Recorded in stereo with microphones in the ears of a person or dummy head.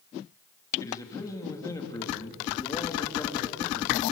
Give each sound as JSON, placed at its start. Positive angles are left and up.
{"t": 0.8, "sound": "a man speaking", "side_deg": 15, "distance_m": 3.0}